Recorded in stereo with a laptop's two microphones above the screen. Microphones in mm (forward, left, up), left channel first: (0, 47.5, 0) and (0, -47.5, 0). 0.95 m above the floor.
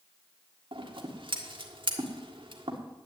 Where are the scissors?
65° right (ahead or behind), 1.7 m.